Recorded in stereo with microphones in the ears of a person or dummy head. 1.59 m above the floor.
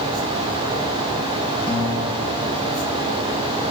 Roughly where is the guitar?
Right.